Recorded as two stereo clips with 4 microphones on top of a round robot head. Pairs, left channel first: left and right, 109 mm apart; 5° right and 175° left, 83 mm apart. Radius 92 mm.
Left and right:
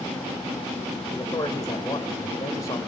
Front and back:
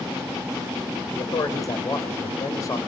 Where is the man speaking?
35° left, 2.5 m.